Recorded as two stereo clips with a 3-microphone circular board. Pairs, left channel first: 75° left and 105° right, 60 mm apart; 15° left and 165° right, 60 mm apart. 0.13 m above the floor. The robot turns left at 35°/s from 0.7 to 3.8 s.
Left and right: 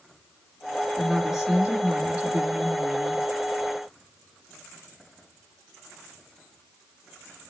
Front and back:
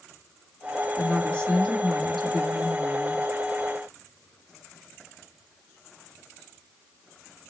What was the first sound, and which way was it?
A woman speaking, 25° right.